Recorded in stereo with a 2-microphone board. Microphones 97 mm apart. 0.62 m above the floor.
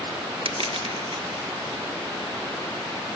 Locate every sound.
0.5 s crushing: 65° right (ahead or behind), 1.4 m